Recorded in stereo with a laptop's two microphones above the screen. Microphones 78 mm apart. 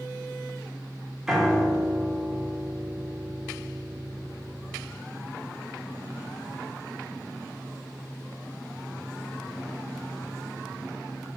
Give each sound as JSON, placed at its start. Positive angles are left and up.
{"t": 1.3, "sound": "a piano", "side_deg": -5, "distance_m": 0.6}